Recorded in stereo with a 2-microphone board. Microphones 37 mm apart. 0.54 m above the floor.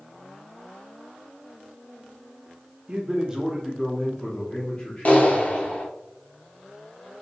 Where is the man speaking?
25° right (ahead or behind), 1.1 m; by 5.8 s 35° left (ahead or behind), 1.6 m.